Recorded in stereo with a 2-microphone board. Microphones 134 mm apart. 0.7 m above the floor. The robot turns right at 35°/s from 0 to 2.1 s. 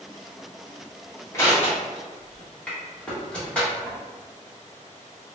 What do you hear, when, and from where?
1.3 s crushing: 20° left (ahead or behind), 1.3 m; by 4.0 s 5° left (ahead or behind), 1.3 m